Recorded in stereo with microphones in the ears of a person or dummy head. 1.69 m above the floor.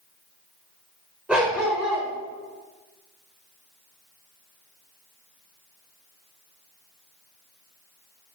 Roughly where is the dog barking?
Centre.